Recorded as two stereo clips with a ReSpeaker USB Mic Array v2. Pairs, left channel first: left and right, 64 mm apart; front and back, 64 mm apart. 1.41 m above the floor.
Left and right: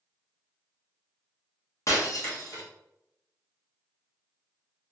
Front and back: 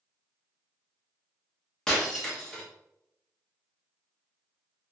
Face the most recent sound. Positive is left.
turn(degrees=80)